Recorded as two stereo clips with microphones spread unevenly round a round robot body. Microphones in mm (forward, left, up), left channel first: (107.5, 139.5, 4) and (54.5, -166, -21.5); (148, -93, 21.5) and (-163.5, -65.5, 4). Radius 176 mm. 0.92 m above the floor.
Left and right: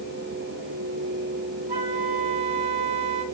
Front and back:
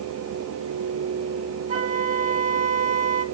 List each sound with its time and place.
1.7 s a flute: 120° right, 2 m